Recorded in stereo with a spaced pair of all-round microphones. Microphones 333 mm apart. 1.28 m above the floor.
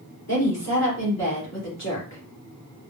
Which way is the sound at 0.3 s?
50° left (ahead or behind).